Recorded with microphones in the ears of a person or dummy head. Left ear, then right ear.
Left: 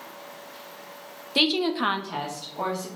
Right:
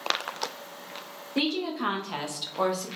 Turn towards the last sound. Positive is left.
turn(degrees=-55)  # may be behind; listen again after turning